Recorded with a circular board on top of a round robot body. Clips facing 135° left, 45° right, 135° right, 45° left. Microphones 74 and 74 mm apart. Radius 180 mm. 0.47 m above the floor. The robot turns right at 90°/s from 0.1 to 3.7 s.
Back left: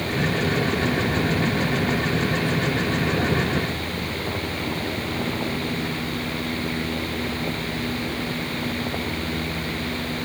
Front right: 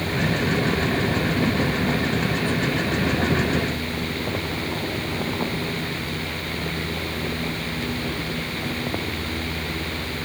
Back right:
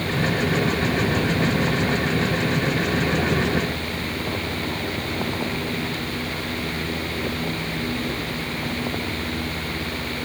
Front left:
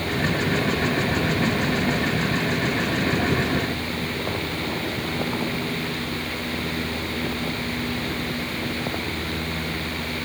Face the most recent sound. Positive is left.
No sound to turn to.